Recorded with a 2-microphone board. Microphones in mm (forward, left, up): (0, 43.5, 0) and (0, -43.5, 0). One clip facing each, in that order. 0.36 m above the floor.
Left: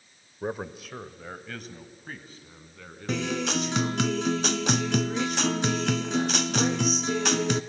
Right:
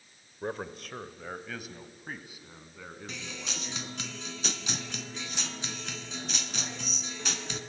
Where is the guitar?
65° left (ahead or behind), 0.6 m.